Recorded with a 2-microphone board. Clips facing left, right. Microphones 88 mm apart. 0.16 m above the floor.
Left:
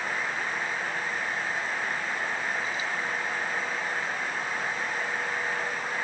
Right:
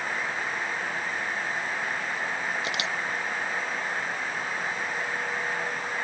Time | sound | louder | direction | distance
2.6 | a camera shutter | right 1 dB | 80° right | ?